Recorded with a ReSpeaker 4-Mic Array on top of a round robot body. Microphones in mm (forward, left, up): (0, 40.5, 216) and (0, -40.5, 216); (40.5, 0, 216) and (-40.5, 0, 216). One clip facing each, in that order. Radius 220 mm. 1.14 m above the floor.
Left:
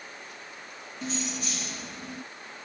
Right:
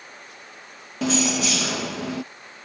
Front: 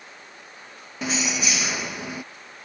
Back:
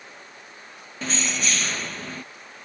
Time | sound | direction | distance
1.0 | keys jangling | 80° right | ?